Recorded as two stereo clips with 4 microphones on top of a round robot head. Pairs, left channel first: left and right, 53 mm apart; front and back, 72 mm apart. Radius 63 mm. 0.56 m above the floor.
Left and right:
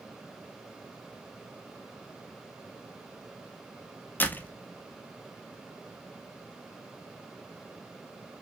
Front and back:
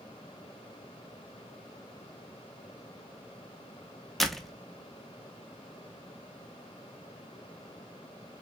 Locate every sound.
4.2 s a door slam: 90° left, 0.8 m